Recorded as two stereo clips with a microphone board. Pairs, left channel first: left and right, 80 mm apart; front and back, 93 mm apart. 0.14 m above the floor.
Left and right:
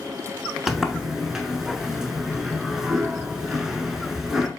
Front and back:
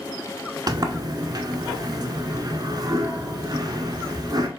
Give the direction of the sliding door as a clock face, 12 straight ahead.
6 o'clock.